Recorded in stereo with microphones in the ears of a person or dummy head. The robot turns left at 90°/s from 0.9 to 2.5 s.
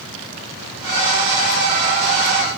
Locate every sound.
Only background noise.